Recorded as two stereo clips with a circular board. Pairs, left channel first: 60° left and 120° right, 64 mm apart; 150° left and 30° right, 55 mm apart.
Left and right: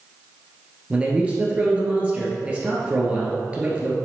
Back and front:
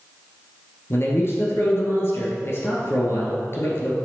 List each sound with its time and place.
0.9 s a man speaking: 175° left, 1.8 m